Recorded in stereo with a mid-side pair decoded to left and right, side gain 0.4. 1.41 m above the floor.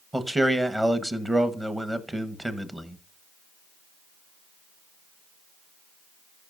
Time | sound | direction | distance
0.1 | a man speaking | 15° right | 1.2 m